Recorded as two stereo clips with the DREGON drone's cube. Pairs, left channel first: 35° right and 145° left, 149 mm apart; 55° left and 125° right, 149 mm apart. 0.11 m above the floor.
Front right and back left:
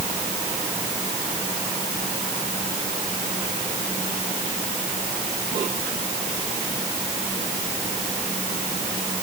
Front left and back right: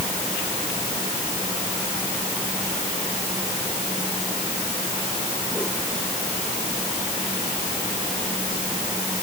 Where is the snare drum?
I don't hear a snare drum.